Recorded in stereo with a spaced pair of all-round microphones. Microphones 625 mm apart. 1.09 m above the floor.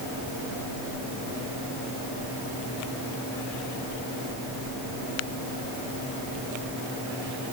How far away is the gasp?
No gasp in this recording.